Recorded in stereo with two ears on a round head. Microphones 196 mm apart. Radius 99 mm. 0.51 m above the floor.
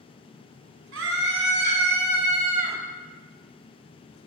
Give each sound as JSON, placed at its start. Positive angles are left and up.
{"t": 0.9, "sound": "a scream", "side_deg": -60, "distance_m": 5.5}